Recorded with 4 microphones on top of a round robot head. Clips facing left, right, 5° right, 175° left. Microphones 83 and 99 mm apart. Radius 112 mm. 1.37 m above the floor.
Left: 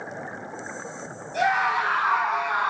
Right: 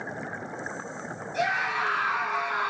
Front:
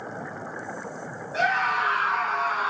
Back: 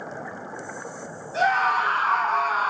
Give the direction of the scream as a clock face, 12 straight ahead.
8 o'clock.